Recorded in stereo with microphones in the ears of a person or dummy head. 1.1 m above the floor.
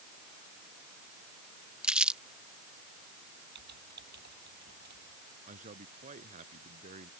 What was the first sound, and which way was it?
Crumpling, 5° right (ahead or behind).